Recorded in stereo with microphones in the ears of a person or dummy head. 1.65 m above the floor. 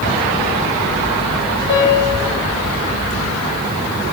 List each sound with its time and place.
1.7 s a piano: 55° left (ahead or behind), 6 m